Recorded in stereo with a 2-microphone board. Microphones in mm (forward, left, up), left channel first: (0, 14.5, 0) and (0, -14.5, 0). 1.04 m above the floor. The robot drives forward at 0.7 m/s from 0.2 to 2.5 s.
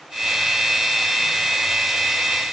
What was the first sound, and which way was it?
Only background noise.